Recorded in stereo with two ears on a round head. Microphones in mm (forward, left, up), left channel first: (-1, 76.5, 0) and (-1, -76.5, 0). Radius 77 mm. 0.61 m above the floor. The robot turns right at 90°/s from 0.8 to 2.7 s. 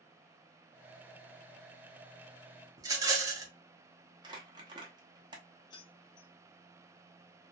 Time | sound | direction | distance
2.8 | a rattle | 20° right (ahead or behind) | 0.6 m
4.2 | crumpling | 25° right (ahead or behind) | 0.7 m
5.7 | keys jangling | 25° left (ahead or behind) | 0.6 m